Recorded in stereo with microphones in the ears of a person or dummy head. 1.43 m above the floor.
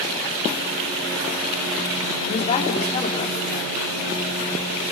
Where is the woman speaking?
40° left (ahead or behind), 3.5 m.